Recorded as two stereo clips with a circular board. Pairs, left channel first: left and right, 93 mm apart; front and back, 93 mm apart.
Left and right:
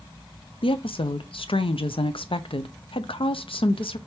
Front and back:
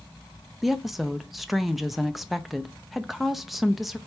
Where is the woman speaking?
90° left, 0.5 m.